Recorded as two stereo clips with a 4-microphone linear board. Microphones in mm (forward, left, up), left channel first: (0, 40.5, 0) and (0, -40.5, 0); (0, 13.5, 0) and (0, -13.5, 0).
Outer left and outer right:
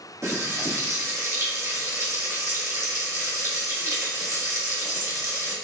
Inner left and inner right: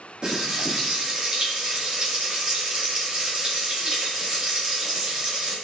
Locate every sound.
0.2 s frying: 40° right (ahead or behind), 2 m